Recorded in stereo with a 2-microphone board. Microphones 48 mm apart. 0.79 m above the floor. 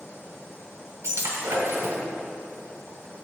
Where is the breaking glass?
70° right (ahead or behind), 1.8 m.